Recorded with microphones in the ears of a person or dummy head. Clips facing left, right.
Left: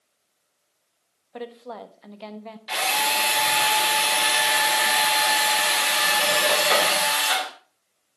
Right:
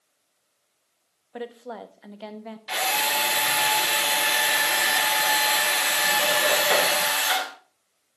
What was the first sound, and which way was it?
A woman speaking, 15° right (ahead or behind).